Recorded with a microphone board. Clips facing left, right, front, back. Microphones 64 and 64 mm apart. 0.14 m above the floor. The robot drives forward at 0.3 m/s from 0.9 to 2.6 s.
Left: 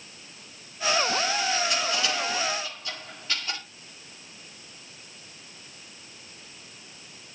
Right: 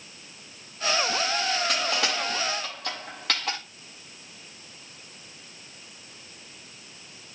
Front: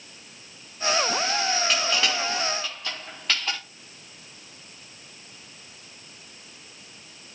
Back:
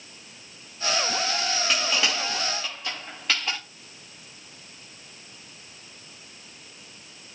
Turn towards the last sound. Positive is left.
turn(degrees=-95)